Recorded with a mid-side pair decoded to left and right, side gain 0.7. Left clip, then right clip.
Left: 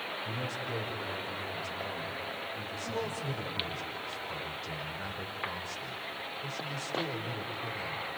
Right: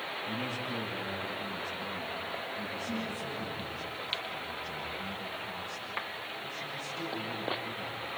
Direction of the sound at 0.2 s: 45° left.